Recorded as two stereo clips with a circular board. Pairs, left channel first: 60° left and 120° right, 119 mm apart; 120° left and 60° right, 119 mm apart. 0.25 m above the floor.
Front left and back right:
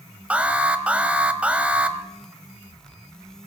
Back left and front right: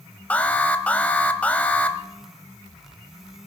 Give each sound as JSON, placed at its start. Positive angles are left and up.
{"t": 0.3, "sound": "an alarm", "azimuth_deg": 180, "distance_m": 1.2}